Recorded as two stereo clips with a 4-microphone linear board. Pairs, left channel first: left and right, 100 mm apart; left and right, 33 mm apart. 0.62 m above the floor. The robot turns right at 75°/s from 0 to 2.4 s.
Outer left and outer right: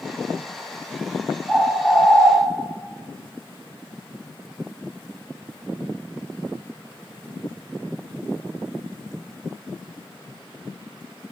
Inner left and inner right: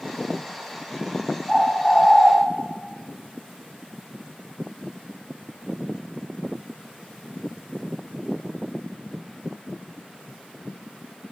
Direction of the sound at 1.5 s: 5° left.